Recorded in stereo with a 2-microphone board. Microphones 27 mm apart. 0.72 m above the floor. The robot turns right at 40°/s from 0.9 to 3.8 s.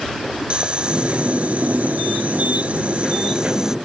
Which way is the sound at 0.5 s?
135° right.